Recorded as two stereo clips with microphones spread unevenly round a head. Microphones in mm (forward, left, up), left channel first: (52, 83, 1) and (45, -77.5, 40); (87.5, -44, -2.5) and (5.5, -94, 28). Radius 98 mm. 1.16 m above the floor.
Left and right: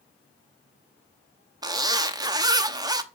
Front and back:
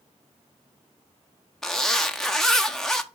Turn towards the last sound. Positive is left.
turn(degrees=-20)